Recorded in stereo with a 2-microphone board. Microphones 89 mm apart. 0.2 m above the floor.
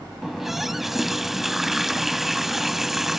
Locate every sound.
0.2 s a running tap: 5° right (ahead or behind), 0.6 m